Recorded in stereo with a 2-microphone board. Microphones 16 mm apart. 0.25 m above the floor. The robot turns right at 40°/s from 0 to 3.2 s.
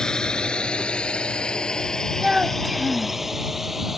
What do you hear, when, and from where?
0.0 s a drone: 35° left (ahead or behind); by 4.0 s 10° right (ahead or behind)
2.2 s a child speaking: 60° right; by 3.2 s 20° right